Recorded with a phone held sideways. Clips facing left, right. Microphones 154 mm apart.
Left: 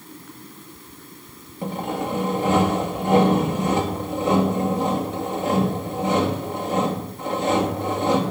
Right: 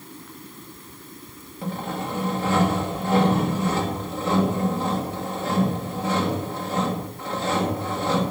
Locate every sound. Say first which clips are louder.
1.6 s sawing: left 3 dB; 20° left (ahead or behind), 2 m